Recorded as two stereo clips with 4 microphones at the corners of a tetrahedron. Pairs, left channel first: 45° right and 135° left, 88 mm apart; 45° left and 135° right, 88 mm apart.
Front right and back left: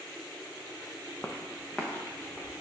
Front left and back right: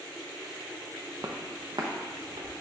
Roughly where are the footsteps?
Right.